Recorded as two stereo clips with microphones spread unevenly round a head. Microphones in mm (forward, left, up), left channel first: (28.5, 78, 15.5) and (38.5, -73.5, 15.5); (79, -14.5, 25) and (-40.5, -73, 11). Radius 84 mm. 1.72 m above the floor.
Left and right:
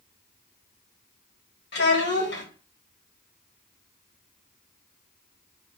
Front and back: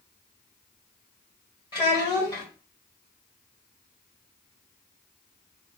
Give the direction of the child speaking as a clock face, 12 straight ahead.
9 o'clock.